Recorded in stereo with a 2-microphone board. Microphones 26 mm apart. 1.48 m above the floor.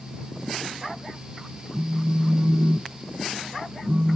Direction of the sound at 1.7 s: 80° right.